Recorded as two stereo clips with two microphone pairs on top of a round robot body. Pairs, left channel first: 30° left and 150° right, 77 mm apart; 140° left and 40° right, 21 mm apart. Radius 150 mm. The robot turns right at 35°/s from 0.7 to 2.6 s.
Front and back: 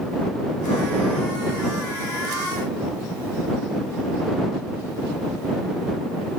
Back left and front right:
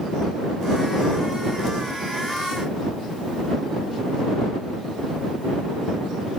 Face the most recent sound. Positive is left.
No sound to turn to.